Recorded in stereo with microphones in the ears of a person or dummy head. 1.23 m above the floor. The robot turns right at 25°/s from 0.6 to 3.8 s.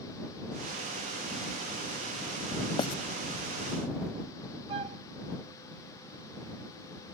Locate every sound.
2.8 s writing: 35° left (ahead or behind); by 3.0 s 30° left (ahead or behind)
4.7 s a flute: 35° right (ahead or behind)